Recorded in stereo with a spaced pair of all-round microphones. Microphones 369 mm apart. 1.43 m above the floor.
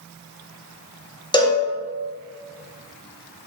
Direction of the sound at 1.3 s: 10° left (ahead or behind).